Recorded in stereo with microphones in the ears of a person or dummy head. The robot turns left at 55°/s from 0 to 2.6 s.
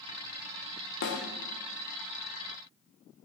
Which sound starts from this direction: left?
A snare drum, at 1.0 s.